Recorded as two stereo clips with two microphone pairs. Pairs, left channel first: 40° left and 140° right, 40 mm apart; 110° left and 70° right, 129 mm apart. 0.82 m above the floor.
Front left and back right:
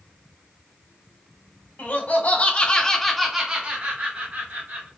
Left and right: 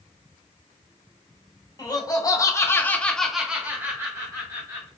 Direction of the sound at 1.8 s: 60° left.